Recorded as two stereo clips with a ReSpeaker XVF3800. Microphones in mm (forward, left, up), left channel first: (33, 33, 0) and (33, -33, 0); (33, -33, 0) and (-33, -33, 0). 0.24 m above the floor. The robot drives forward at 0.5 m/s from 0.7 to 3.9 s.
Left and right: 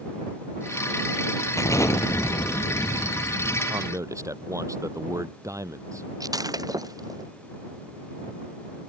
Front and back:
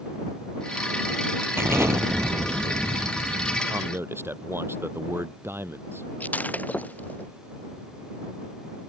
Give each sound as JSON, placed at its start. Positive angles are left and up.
{"t": 1.6, "sound": "an explosion", "azimuth_deg": 125}
{"t": 3.7, "sound": "a man speaking", "azimuth_deg": -125}
{"t": 6.2, "sound": "breaking glass", "azimuth_deg": -65}